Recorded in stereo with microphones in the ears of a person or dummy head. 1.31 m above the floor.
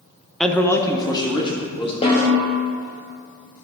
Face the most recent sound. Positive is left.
turn(degrees=30)  # may be behind; listen again after turning